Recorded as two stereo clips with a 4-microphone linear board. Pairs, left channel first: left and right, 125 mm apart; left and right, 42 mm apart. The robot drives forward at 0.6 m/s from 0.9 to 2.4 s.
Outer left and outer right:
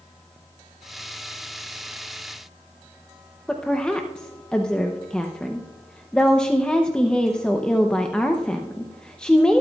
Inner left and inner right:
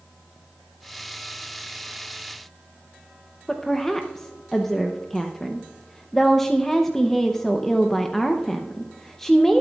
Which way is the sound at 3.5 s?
5° left (ahead or behind).